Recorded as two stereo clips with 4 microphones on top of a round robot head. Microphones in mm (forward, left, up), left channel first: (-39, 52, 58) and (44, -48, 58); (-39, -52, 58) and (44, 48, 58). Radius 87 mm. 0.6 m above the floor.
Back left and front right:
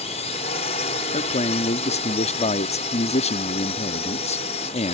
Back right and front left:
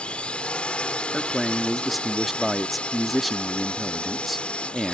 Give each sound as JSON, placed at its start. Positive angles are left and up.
{"t": 0.0, "sound": "a drone", "azimuth_deg": 150}
{"t": 1.1, "sound": "a man speaking", "azimuth_deg": 140}